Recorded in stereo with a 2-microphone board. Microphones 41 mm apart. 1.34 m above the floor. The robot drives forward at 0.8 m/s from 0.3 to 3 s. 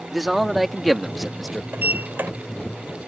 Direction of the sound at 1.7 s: 55° right (ahead or behind).